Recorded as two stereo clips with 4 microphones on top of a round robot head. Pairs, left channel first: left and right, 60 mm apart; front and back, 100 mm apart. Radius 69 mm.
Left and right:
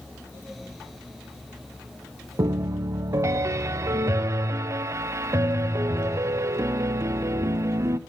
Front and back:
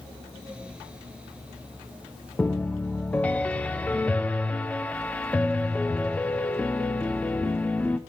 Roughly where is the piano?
Right.